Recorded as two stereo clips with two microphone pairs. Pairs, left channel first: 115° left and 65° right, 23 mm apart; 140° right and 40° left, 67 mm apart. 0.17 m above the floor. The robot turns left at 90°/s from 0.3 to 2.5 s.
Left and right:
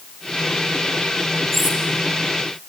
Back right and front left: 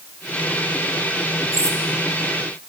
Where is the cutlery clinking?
20° left, 2.5 m; by 1.8 s 5° right, 2.5 m.